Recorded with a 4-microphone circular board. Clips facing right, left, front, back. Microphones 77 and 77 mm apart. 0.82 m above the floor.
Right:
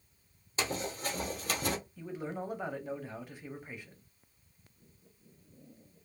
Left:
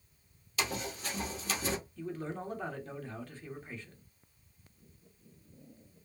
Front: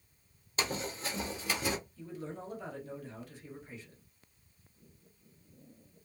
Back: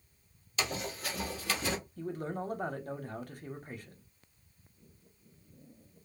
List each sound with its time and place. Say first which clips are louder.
0.6 s running footsteps: right 1 dB, even; 40° right, 1.3 m; by 1.8 s 80° right, 1.3 m
2.0 s a man speaking: even, back 6 dB; 165° right, 0.7 m